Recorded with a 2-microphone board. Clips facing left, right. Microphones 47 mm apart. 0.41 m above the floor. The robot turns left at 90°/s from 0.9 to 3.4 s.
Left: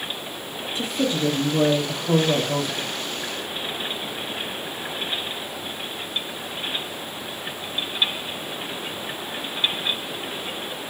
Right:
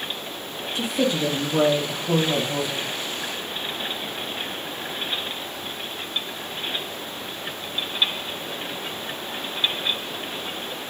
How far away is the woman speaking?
About 1.9 m.